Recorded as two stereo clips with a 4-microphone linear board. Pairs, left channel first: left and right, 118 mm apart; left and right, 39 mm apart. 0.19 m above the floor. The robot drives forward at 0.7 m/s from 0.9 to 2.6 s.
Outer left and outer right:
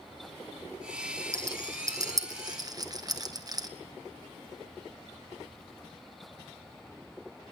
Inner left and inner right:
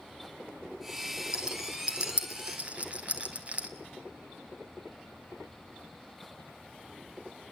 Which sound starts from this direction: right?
A rattle, at 1.3 s.